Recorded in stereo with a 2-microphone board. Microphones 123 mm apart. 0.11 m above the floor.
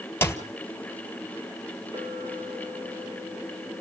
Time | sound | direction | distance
0.2 | a clap | 20° left (ahead or behind) | 1.5 m
1.9 | a clink | 40° right (ahead or behind) | 1.4 m